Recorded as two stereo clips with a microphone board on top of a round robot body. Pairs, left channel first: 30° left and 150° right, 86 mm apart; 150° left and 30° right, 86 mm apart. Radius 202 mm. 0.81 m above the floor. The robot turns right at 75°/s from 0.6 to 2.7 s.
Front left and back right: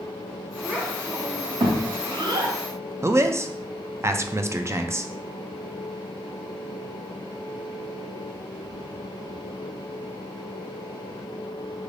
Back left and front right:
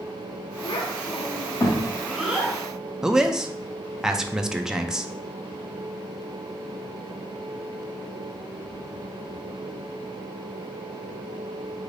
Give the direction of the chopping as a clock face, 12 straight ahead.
I don't hear chopping.